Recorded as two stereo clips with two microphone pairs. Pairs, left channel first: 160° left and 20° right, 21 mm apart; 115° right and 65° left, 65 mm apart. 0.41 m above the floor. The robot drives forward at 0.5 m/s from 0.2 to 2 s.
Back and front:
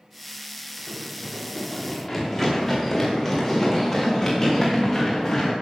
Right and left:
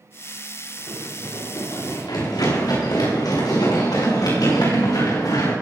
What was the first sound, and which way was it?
Running footsteps, 115° right.